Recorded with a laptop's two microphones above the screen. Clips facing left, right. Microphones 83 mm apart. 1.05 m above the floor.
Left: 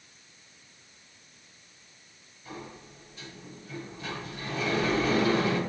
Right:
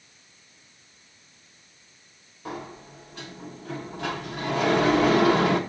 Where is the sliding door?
70° right (ahead or behind), 1.0 m.